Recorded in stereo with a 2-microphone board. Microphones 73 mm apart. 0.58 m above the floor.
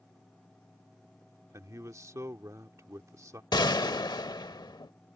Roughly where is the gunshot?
Left.